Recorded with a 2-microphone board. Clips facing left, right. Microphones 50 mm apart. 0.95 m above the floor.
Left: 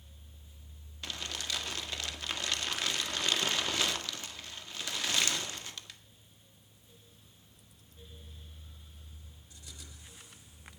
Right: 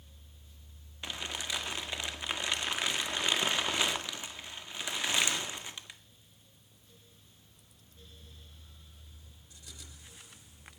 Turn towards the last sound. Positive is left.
turn(degrees=-15)  # may be behind; listen again after turning